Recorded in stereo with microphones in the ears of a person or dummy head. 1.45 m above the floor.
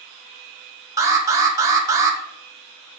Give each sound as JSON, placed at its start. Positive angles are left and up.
{"t": 1.0, "sound": "an alarm", "side_deg": -20, "distance_m": 1.3}